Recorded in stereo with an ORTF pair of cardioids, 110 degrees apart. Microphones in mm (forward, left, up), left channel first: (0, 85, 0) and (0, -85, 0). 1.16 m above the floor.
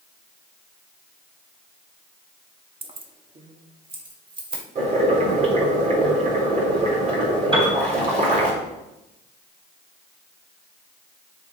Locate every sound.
2.8 s keys jangling: 30° right, 1.3 m
4.8 s boiling: 45° right, 4.5 m
7.5 s a piano: 30° right, 3.5 m